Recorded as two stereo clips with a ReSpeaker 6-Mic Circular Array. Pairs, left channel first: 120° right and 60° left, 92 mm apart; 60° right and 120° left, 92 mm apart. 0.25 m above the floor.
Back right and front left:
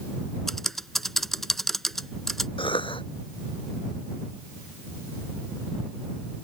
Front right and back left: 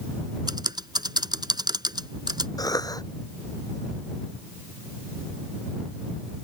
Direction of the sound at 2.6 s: 105° right.